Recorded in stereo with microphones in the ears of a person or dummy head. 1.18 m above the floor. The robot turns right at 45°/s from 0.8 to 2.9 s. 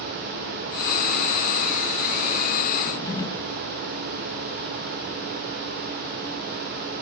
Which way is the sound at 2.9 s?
20° left (ahead or behind).